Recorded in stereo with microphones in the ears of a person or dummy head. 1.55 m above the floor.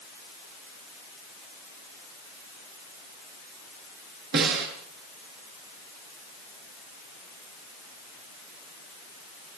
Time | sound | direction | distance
4.3 | a snare drum | 65° right (ahead or behind) | 8 m